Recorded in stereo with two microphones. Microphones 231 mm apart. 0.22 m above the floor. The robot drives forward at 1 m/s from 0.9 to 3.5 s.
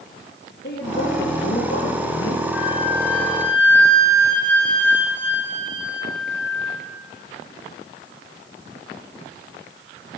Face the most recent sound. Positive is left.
turn(degrees=-55)  # may be behind; listen again after turning